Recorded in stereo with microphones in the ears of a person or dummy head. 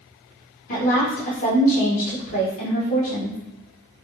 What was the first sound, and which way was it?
A woman speaking, 45° left (ahead or behind).